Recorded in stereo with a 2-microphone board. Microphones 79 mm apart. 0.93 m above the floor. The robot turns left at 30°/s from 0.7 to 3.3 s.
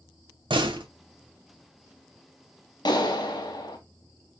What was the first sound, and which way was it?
A door slam, 85° right.